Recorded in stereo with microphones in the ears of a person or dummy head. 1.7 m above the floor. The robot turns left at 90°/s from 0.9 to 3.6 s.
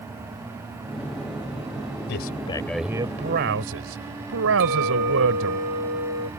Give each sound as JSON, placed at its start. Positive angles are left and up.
{"t": 2.1, "sound": "a man speaking", "azimuth_deg": 60}
{"t": 4.6, "sound": "a clink", "side_deg": -70}